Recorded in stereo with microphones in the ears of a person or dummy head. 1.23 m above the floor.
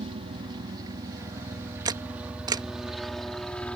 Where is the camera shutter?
25° right (ahead or behind).